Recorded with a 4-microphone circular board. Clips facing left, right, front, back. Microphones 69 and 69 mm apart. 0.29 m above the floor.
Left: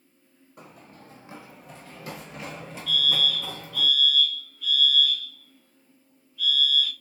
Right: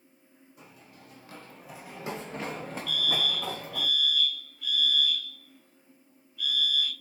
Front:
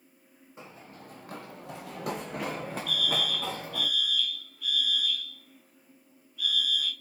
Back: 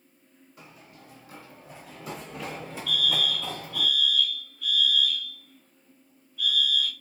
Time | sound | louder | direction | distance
0.6 | running footsteps | left 6 dB, front 3 dB | 65° left | 0.7 m
2.9 | a fire alarm | left 5 dB, back 4 dB | 50° right | 1.9 m